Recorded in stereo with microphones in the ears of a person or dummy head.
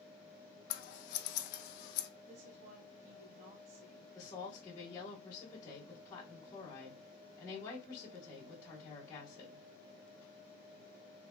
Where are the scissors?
60° left (ahead or behind), 0.7 m.